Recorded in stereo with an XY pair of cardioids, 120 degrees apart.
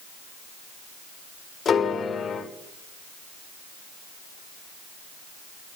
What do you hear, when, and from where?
1.6 s a piano: 40° left, 3.5 m